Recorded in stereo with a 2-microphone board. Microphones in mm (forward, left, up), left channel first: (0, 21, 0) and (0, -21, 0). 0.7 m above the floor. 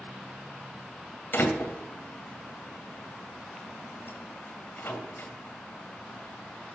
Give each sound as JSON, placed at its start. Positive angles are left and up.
{"t": 1.3, "sound": "a door slam", "side_deg": 55, "distance_m": 2.0}